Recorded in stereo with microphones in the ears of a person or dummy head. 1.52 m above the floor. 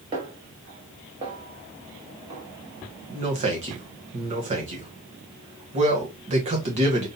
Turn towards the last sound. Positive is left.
turn(degrees=-35)  # may be behind; listen again after turning